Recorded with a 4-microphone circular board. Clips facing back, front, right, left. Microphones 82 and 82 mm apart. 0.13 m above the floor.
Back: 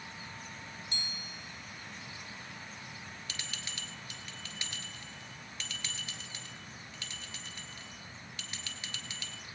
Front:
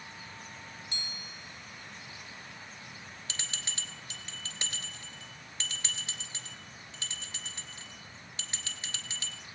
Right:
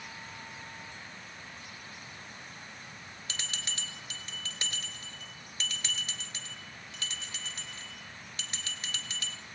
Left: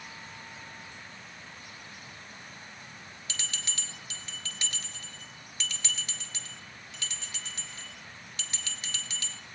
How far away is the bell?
About 2.5 m.